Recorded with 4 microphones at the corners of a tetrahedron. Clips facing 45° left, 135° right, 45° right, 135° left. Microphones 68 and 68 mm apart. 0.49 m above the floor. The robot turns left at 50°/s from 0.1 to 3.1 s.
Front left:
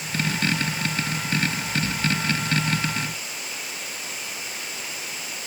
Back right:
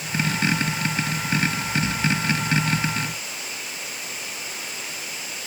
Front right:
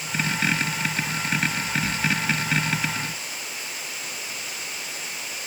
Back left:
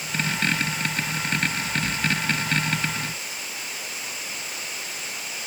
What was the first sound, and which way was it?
Only background noise.